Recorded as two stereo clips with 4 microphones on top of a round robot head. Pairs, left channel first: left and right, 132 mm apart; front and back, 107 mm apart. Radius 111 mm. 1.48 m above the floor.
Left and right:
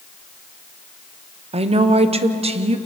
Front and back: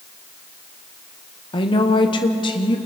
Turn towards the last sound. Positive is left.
turn(degrees=-50)